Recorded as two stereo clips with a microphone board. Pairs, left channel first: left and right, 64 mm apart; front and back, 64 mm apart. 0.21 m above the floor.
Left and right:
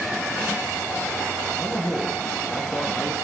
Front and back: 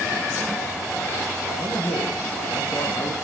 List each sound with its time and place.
1.6 s a man speaking: 20° left, 2.0 m